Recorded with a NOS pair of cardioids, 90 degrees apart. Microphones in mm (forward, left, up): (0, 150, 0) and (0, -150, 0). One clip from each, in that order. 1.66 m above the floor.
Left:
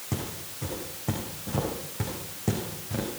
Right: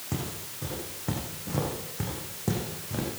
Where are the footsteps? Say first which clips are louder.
Left 1 dB; 10° left, 6 m.